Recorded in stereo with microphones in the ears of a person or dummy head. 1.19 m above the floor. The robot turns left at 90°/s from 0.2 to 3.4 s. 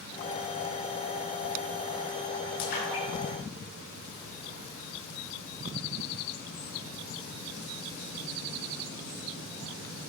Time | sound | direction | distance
2.6 | a splash | 70° left (ahead or behind) | 5.5 m